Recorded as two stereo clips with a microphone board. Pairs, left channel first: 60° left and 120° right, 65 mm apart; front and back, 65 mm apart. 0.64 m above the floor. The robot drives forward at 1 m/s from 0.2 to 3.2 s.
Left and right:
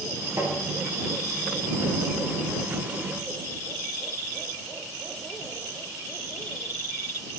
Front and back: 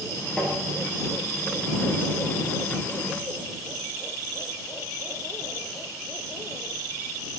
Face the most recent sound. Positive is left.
turn(degrees=-125)